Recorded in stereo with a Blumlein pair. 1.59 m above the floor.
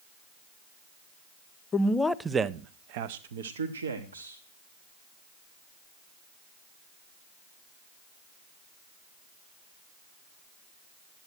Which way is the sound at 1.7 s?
25° left.